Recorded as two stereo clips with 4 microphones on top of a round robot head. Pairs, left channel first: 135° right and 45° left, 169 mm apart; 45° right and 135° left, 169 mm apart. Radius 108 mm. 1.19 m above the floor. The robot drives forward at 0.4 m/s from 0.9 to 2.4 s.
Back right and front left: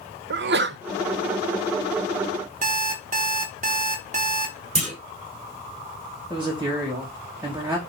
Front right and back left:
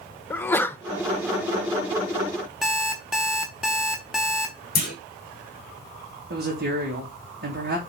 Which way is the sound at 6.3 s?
120° left.